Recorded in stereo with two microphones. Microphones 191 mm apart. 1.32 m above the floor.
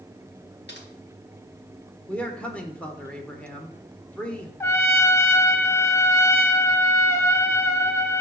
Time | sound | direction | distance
0.7 | typing on a keyboard | 70° left (ahead or behind) | 1.6 m
2.1 | a man speaking | 5° left (ahead or behind) | 1.3 m
4.6 | a trumpet | 15° left (ahead or behind) | 0.8 m